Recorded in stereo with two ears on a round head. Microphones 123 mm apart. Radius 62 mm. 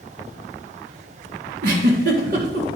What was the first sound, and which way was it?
A giggle, 65° right (ahead or behind).